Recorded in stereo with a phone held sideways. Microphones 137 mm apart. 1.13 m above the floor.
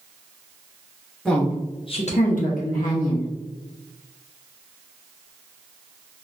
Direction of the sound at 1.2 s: 5° left (ahead or behind).